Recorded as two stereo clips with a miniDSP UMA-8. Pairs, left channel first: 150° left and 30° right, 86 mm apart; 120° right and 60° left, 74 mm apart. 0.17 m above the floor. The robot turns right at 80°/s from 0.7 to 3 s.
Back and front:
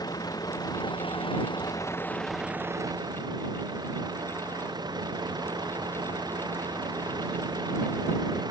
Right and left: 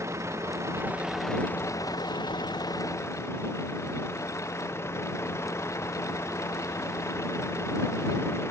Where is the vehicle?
110° left; by 8.5 s 65° right.